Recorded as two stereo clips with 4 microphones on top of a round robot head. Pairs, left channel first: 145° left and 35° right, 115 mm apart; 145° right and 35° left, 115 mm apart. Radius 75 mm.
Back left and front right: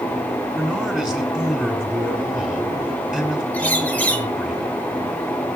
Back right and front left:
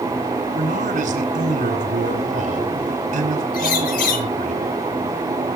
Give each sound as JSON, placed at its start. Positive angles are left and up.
{"t": 0.6, "sound": "a man speaking", "azimuth_deg": 55, "distance_m": 6.5}
{"t": 3.5, "sound": "a bird", "azimuth_deg": -140, "distance_m": 2.5}